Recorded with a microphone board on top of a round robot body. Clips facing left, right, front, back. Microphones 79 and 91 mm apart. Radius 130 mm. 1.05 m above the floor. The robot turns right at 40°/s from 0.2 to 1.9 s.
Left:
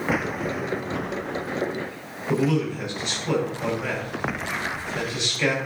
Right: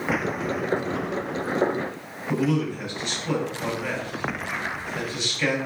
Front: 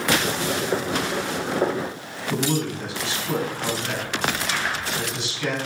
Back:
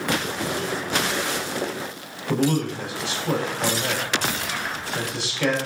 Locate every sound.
2.3 s a man speaking: 165° left, 4.5 m